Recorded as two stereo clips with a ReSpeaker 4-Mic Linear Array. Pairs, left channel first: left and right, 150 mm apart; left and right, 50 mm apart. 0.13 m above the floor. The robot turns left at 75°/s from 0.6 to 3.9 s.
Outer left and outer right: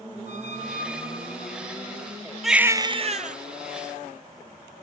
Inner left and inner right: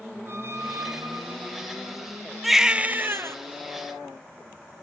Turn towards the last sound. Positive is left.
turn(degrees=-110)